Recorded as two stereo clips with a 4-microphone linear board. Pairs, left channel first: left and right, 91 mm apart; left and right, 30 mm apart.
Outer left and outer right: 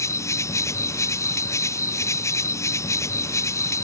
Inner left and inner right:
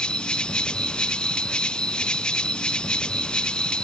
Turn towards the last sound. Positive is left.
turn(degrees=35)  # may be behind; listen again after turning